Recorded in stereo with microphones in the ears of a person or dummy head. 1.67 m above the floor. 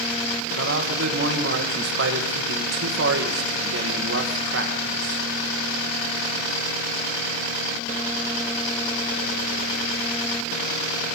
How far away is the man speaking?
About 2.0 m.